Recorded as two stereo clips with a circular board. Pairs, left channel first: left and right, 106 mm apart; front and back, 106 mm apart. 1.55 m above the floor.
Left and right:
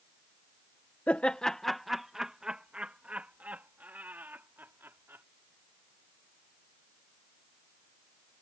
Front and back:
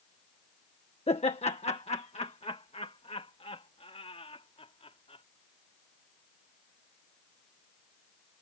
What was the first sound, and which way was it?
Laughter, 15° left.